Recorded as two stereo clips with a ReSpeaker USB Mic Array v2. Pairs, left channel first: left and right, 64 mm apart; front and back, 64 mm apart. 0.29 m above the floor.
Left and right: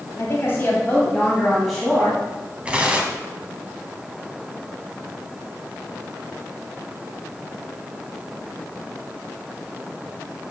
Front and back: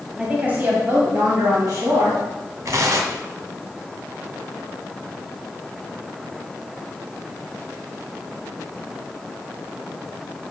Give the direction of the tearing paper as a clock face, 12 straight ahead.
5 o'clock.